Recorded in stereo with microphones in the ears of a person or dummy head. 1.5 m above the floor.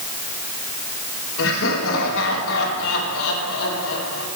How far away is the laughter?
About 5 m.